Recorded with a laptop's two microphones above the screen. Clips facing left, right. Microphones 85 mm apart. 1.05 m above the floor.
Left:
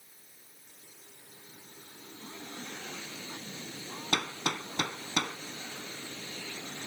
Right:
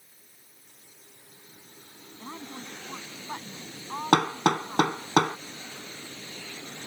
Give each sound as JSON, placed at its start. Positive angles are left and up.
{"t": 2.2, "sound": "a woman speaking", "side_deg": -55}
{"t": 4.1, "sound": "hammering", "side_deg": -50}